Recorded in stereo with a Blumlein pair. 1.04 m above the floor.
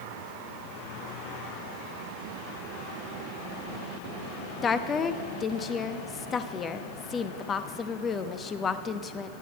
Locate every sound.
4.6 s a woman speaking: 25° left, 1.0 m